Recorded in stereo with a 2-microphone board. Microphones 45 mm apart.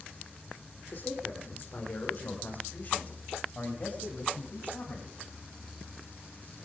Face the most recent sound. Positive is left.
turn(degrees=40)  # may be behind; listen again after turning